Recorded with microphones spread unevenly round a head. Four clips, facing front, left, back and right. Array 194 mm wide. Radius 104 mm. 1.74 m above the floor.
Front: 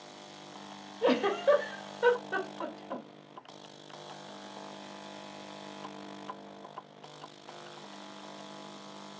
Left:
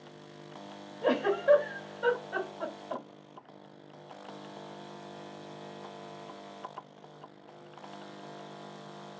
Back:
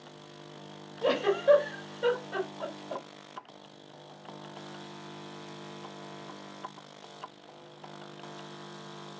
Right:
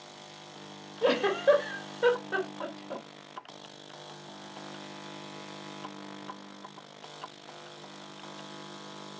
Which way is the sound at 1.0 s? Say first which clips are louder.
Right 2 dB, back 1 dB; 65° right.